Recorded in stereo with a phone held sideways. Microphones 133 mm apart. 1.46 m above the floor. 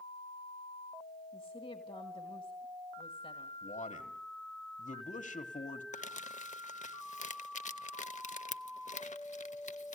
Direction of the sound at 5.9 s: 65° left (ahead or behind).